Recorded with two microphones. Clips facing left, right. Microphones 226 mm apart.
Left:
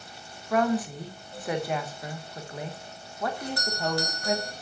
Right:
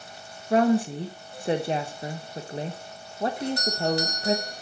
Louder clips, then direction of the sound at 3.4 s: Right 5 dB; 20° right (ahead or behind).